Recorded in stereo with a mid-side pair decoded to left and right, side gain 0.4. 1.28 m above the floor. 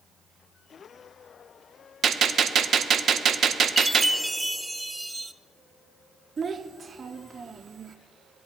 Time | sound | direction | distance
2.0 | a gunshot | 60° right | 0.6 m
3.8 | a chime | 10° right | 0.5 m
6.4 | a child speaking | 45° right | 0.6 m